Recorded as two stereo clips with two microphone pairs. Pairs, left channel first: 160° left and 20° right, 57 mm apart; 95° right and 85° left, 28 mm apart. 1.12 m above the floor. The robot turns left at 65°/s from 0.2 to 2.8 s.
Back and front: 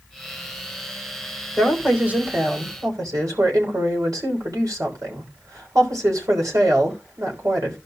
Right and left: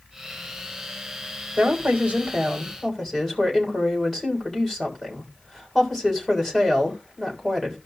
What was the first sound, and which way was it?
A woman speaking, 70° left.